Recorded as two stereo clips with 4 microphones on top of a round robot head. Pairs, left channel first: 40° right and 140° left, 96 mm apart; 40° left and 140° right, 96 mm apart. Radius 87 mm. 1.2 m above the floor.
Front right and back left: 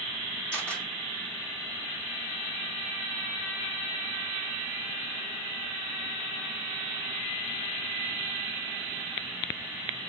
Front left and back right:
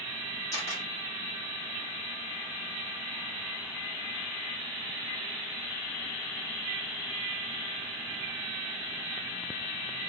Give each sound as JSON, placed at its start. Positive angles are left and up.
{"t": 0.5, "sound": "a camera shutter", "azimuth_deg": 35, "distance_m": 2.5}